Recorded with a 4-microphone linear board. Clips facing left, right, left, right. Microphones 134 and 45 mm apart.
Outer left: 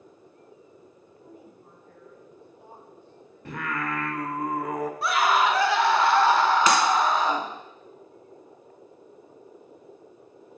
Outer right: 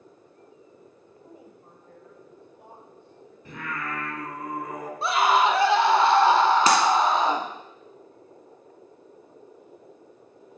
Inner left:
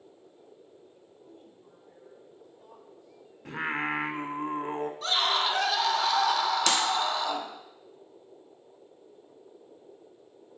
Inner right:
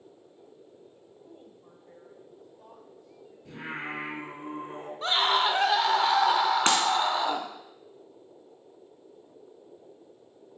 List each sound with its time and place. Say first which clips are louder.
1.2 s a woman speaking: even, inner right 2 dB; 15° right (ahead or behind), 1.6 m; by 3.4 s 75° right (ahead or behind), 3.5 m
3.5 s singing: outer left 3 dB, inner left 6 dB; 70° left (ahead or behind), 1.0 m
5.0 s a scream: outer right 2 dB, inner right 4 dB; 25° right (ahead or behind), 0.8 m
6.7 s breaking glass: outer right 1 dB, inner right 3 dB; 35° right (ahead or behind), 1.7 m